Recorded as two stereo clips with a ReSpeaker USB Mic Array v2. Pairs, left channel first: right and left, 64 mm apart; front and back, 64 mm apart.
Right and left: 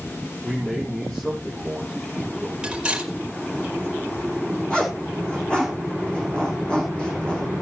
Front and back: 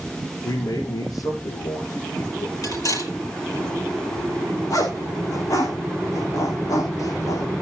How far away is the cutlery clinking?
About 4.5 m.